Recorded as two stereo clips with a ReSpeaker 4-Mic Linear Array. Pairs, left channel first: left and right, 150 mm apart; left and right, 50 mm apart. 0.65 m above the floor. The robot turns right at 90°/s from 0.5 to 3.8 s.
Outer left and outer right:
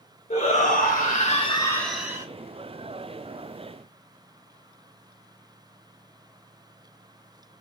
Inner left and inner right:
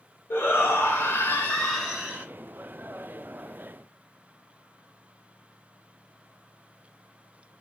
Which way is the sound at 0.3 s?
55° left.